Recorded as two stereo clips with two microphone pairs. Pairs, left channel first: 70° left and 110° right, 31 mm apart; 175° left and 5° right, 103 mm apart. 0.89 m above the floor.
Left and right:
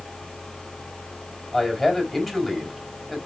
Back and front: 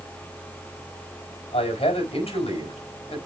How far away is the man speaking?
About 4 m.